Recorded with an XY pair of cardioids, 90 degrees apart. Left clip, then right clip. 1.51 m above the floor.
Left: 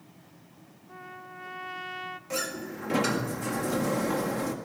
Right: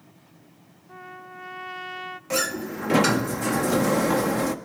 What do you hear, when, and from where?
0.9 s a trumpet: 20° right, 0.7 m
2.3 s a sliding door: 55° right, 1.8 m